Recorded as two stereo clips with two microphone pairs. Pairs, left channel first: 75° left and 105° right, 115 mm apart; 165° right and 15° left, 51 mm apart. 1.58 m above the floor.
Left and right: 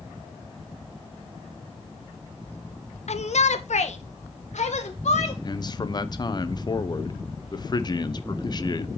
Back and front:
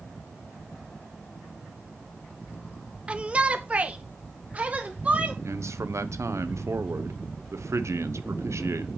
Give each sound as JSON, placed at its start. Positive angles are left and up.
{"t": 3.1, "sound": "a shout", "azimuth_deg": 80, "distance_m": 0.7}
{"t": 5.4, "sound": "a man speaking", "azimuth_deg": 30, "distance_m": 0.8}